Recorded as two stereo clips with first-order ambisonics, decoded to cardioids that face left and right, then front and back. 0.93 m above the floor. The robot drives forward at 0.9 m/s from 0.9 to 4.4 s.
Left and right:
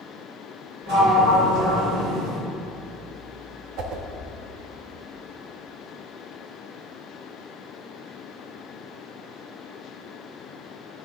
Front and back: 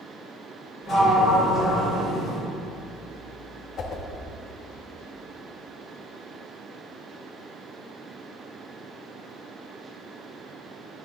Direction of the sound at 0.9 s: 65° right.